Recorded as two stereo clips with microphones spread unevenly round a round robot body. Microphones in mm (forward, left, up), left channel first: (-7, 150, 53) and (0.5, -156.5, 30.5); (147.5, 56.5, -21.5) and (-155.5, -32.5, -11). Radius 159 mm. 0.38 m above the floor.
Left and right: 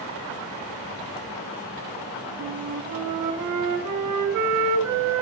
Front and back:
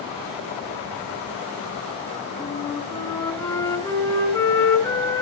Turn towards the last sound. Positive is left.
turn(degrees=-65)